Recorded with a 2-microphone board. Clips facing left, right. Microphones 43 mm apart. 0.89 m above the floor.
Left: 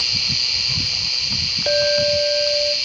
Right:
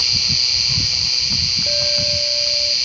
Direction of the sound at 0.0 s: 30° left (ahead or behind).